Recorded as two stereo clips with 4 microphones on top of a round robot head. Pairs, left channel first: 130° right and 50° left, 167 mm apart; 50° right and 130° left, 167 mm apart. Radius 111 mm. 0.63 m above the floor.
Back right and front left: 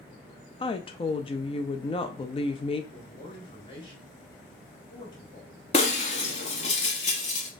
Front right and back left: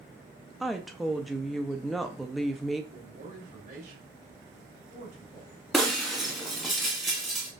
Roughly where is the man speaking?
Behind.